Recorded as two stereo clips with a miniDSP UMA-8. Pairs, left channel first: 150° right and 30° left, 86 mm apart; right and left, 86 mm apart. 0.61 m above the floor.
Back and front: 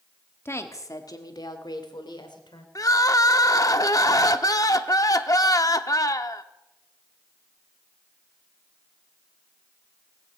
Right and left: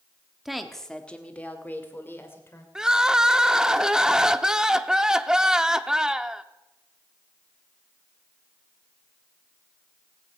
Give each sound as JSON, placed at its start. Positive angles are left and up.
{"t": 0.5, "sound": "a woman speaking", "azimuth_deg": 170, "distance_m": 1.3}
{"t": 2.8, "sound": "crying", "azimuth_deg": 170, "distance_m": 0.6}